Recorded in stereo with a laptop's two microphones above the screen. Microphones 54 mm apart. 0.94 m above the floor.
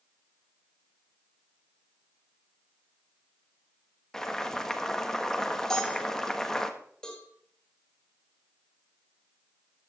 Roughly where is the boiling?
Centre.